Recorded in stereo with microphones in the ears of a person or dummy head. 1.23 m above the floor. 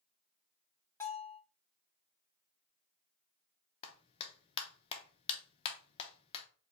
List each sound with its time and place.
1.0 s a bell: 10° left (ahead or behind), 1.5 m
3.8 s a clap: 25° left (ahead or behind), 0.7 m